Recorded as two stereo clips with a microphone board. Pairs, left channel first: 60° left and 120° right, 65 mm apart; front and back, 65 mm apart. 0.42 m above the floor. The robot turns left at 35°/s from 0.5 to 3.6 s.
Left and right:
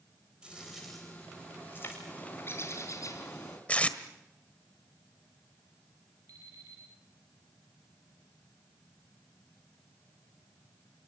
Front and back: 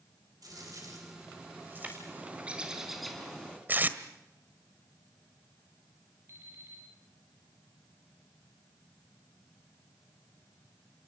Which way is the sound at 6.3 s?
140° right.